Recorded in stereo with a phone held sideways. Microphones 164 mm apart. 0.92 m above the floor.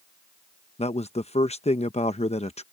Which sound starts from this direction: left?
A man speaking, at 0.8 s.